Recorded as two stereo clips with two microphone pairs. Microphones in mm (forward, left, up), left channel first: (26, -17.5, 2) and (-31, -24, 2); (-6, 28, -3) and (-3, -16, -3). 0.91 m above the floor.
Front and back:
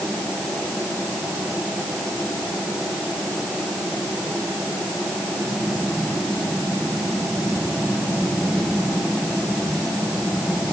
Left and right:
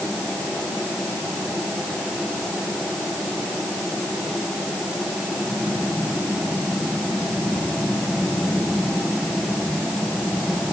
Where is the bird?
I don't hear a bird.